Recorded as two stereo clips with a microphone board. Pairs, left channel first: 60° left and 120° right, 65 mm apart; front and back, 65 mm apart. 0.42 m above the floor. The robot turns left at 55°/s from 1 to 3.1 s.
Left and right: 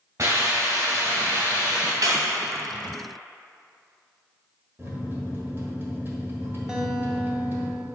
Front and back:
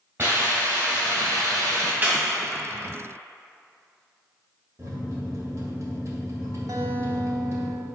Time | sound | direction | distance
0.2 | a hiss | 130° right | 2.5 m
2.0 | a clap | 120° right | 2 m
4.8 | a microwave | 165° right | 1.6 m
6.7 | a guitar | 160° left | 0.9 m